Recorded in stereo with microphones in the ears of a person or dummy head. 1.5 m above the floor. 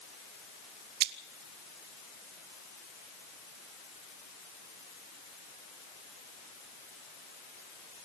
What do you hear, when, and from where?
1.0 s scissors: 60° right (ahead or behind), 1.1 m